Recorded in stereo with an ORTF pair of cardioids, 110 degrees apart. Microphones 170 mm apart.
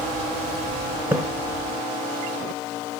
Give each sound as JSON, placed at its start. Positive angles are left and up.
{"t": 1.1, "sound": "a splash", "azimuth_deg": -5, "distance_m": 0.7}